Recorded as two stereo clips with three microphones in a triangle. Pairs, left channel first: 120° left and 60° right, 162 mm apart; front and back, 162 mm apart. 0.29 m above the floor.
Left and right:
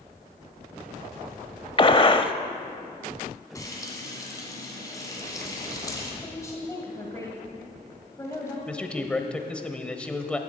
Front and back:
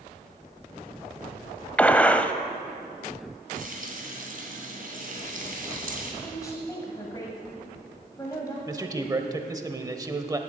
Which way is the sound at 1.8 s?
75° left.